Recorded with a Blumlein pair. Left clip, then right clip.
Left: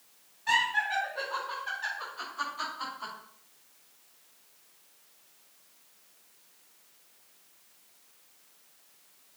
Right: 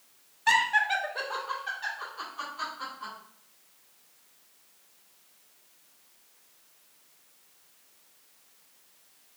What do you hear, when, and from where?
0.5 s laughter: 60° right, 1.2 m; by 3.1 s 10° left, 3 m